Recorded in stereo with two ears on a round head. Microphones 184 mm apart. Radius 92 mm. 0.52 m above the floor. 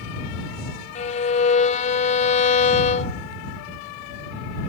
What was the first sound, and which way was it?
A violin, 40° left (ahead or behind).